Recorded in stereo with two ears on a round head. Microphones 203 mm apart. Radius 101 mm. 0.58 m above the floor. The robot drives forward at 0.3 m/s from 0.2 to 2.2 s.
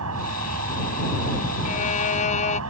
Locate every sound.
0.0 s an insect: 75° right (ahead or behind)
1.6 s a violin: 35° left (ahead or behind)